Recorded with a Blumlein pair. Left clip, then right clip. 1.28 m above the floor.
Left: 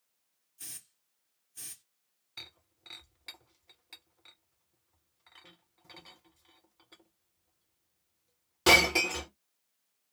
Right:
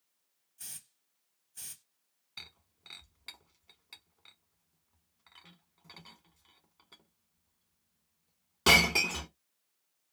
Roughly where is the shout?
No shout in this recording.